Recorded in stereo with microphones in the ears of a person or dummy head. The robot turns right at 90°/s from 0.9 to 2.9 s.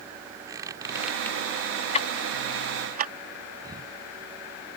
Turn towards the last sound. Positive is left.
turn(degrees=-20)  # may be behind; listen again after turning